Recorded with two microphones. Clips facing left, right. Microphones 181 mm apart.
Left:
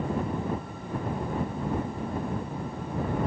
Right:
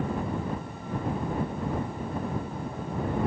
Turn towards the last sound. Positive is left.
No sound to turn to.